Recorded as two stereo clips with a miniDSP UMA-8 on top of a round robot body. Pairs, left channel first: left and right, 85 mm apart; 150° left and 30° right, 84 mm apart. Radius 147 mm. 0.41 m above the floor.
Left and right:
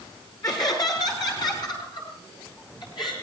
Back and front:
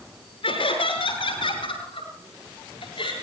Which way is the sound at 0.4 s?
135° left.